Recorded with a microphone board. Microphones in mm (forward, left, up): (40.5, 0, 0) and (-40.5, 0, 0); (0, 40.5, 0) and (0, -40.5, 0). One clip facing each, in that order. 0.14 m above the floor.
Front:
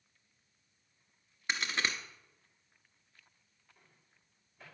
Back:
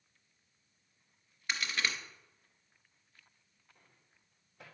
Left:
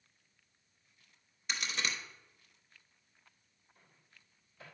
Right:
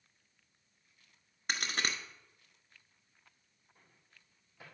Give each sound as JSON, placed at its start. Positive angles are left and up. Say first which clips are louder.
{"t": 1.5, "sound": "a crack", "louder": "front 1 dB, right 2 dB", "azimuth_deg": -60, "distance_m": 1.0}
{"t": 3.8, "sound": "a microwave", "louder": "front 1 dB, even", "azimuth_deg": -160, "distance_m": 4.0}